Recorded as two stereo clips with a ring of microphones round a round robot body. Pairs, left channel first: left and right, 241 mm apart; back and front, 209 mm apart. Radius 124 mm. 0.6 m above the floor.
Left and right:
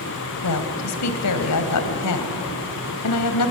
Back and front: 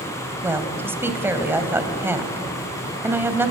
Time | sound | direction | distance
0.4 | a woman speaking | 80° left | 3 m